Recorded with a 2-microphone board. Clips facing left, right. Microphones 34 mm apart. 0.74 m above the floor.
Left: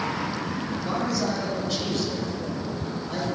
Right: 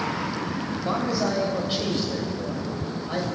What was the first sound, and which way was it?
A man speaking, 30° right (ahead or behind).